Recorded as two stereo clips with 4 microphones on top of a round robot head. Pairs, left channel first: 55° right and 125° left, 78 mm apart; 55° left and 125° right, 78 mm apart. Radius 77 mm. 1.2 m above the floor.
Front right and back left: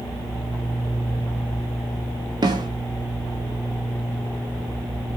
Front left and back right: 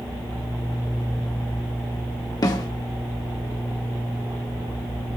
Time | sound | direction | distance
2.4 | a snare drum | 95° left | 2.5 m